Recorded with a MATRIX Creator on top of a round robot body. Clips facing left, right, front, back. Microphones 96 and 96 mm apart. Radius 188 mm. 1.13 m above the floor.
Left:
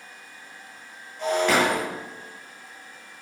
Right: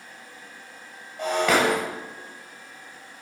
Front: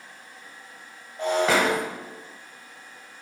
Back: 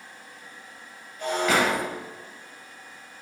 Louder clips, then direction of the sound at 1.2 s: Even, front 2 dB; 60° right.